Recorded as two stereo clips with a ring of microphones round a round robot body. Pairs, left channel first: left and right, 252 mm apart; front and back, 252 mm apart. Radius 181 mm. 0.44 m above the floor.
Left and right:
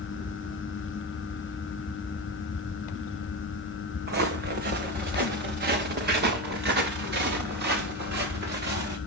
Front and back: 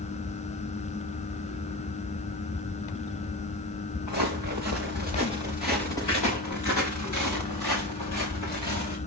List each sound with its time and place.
4.1 s footsteps: 40° right, 2.5 m